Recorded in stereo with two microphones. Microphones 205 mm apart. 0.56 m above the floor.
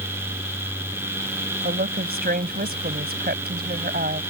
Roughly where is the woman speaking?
Right.